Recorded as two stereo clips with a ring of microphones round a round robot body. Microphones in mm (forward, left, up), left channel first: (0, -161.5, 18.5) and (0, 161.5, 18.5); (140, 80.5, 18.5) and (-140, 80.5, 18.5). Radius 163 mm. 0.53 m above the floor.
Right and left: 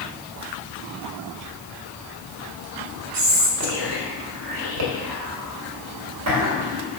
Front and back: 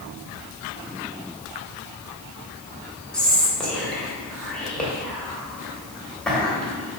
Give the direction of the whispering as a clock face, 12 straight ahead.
9 o'clock.